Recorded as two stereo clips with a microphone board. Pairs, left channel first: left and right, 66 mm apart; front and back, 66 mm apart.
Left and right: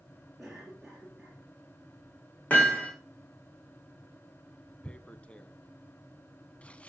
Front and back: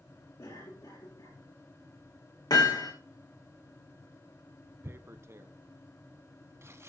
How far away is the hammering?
About 5.5 m.